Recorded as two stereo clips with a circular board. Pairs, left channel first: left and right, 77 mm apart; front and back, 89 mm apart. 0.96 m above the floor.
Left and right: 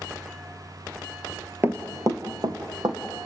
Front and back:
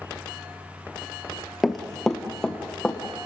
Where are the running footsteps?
90° right, 1.0 m; by 3.0 s 80° right, 2 m.